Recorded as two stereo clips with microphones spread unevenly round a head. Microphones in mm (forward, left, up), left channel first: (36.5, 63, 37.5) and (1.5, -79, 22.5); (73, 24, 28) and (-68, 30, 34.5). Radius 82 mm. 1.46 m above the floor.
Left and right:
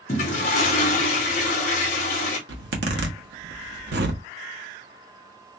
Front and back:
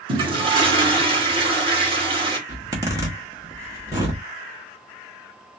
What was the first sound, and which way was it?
A toilet flushing, 125° left.